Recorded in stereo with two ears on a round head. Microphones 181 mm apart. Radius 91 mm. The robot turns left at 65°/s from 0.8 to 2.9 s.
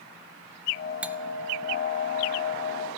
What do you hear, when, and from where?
1.0 s cutlery clinking: 5° right (ahead or behind), 0.7 m; by 1.2 s 10° right (ahead or behind), 0.7 m